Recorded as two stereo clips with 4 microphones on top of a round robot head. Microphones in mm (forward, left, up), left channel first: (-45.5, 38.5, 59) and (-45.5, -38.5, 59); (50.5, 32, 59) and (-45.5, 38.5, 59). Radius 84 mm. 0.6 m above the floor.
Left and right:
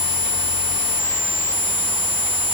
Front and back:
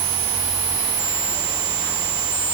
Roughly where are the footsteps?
I don't hear footsteps.